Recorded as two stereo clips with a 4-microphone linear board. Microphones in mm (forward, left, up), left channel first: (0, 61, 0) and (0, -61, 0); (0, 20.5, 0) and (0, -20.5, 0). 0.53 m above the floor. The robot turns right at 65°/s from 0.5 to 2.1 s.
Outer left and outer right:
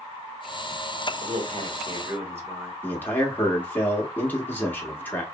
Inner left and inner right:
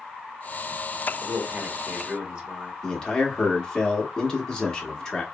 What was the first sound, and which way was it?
A man speaking, 85° right.